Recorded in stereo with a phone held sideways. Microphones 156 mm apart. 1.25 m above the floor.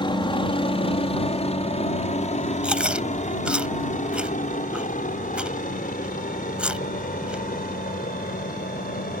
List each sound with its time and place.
0.0 s a helicopter: 35° left (ahead or behind); by 9.2 s 70° left (ahead or behind)
2.6 s chewing: 5° right (ahead or behind)